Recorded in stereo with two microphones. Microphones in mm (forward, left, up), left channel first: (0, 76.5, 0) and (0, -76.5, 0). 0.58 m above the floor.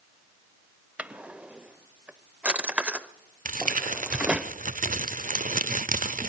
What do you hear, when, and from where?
1.0 s a drawer: 10° right (ahead or behind), 0.6 m
3.5 s crumpling: 60° right (ahead or behind), 0.5 m